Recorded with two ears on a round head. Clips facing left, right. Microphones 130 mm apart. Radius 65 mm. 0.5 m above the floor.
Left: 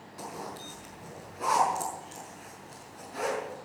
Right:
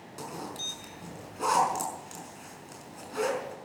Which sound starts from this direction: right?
A zipper, at 0.2 s.